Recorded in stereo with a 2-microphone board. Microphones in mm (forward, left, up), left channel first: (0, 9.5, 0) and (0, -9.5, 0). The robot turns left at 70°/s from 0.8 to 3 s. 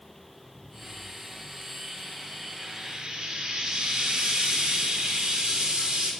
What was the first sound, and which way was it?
Frying, 35° right (ahead or behind).